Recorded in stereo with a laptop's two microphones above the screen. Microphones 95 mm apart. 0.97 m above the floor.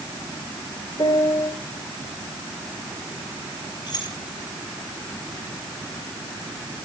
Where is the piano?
55° left (ahead or behind), 3.5 m.